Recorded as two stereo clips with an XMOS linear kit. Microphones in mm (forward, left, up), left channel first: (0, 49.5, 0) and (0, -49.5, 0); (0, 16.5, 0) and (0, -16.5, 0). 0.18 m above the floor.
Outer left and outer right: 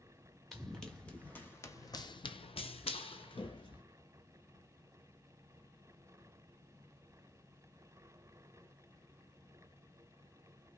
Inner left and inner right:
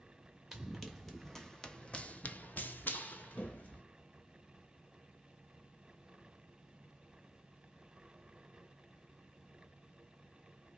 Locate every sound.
0.5 s running footsteps: centre (ahead or behind), 1.1 m; by 3.8 s 55° left (ahead or behind), 1.0 m